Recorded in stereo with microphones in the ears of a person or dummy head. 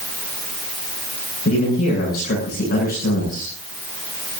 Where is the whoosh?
I don't hear a whoosh.